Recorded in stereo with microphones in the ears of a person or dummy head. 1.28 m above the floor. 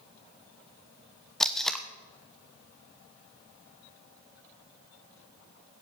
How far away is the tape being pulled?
About 1.0 m.